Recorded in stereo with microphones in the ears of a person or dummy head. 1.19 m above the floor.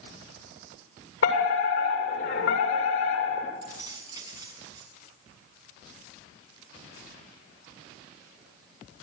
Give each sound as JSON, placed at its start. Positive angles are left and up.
{"t": 1.2, "sound": "a fire alarm", "side_deg": 75, "distance_m": 7.0}
{"t": 3.6, "sound": "keys jangling", "side_deg": -15, "distance_m": 6.5}